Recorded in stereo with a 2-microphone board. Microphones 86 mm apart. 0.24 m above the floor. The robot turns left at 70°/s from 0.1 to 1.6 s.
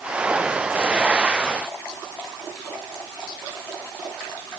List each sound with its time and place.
Only background noise.